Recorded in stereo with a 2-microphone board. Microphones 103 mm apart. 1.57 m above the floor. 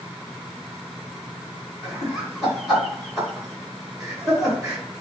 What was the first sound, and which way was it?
Laughter, 5° right (ahead or behind).